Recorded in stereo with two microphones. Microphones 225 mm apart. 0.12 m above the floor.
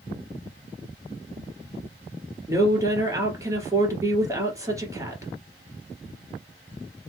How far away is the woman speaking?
About 2 m.